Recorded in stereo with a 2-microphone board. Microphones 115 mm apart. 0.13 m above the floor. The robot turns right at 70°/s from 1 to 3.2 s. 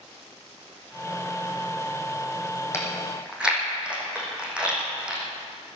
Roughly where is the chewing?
Left.